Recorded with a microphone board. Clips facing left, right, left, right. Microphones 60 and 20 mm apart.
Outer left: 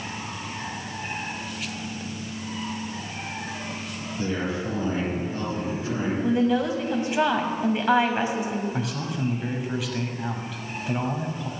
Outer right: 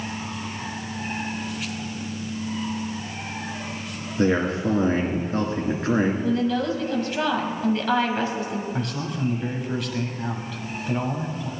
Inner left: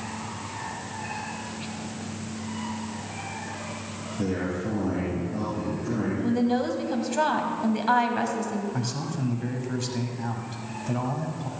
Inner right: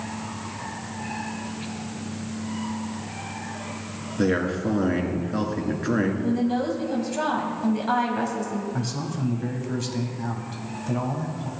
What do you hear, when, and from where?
4.2 s a man speaking: 65° right (ahead or behind), 2.5 m
6.2 s a woman speaking: 20° left (ahead or behind), 1.2 m
8.7 s a man speaking: 5° left (ahead or behind), 1.2 m